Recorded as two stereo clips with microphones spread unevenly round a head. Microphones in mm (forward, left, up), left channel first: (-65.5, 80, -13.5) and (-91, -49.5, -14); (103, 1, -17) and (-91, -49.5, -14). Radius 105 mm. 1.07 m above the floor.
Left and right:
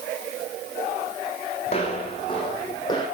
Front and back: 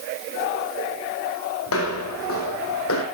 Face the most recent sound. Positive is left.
turn(degrees=10)